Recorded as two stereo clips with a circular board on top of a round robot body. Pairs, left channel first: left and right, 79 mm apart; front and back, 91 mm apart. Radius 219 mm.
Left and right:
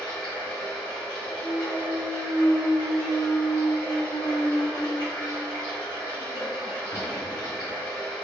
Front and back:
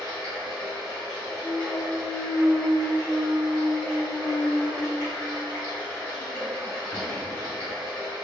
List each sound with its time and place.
0.0 s running water: 60° left, 1.5 m
1.3 s a clunk: 80° left, 0.7 m